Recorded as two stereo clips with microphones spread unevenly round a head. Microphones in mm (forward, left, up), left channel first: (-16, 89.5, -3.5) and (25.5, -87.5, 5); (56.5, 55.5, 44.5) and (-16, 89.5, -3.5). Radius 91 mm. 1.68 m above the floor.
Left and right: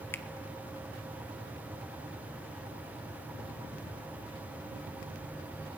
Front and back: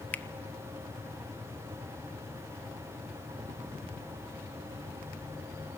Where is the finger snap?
25° left, 0.9 m.